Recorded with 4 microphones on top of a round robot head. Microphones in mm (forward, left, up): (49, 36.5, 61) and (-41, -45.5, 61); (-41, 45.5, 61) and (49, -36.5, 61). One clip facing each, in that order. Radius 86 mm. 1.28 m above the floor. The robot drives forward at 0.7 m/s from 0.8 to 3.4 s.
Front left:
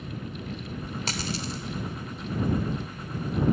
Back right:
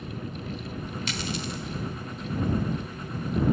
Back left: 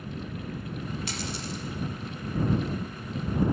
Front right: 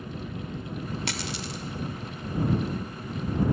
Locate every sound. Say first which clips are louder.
1.1 s a dropped coin: even, front right 1 dB; 10° right, 2 m; by 1.6 s 15° right, 1.7 m